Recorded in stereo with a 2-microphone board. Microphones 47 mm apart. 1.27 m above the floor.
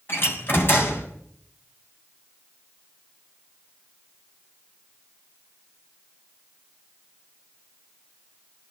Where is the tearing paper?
I don't hear tearing paper.